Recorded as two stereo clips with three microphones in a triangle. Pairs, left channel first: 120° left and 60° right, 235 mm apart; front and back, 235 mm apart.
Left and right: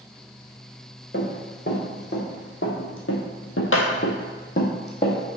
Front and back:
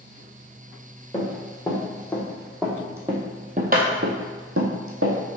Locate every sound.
1.1 s running footsteps: 70° left, 3 m; by 5.2 s 170° right, 1.8 m